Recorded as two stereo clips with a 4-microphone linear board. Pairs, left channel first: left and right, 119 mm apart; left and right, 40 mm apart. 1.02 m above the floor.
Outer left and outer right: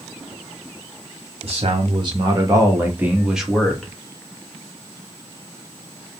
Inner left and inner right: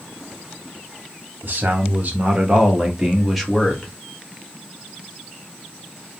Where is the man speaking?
55° right (ahead or behind), 1.4 m; by 3.9 s 10° left (ahead or behind), 1.3 m.